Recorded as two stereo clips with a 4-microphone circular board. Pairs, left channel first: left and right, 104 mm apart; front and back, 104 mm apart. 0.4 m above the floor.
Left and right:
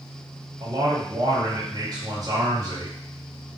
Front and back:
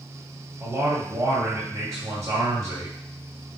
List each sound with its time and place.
0.6 s a man speaking: 130° right, 1.8 m